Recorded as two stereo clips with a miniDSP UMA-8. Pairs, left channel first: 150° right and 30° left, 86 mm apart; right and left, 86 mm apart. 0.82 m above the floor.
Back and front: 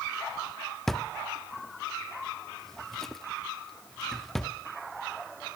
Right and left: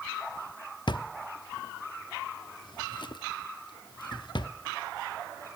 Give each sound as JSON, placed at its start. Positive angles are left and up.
{"t": 0.9, "sound": "a drawer", "azimuth_deg": -65, "distance_m": 0.9}